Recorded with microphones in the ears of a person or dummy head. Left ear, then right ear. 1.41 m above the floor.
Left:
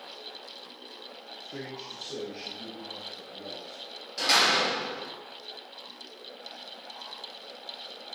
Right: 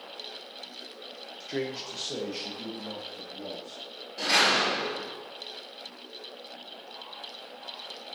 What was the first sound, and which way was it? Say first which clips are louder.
A man speaking: right 7 dB; 45° right (ahead or behind).